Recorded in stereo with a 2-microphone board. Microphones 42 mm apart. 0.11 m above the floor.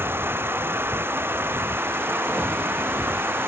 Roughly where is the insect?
Right.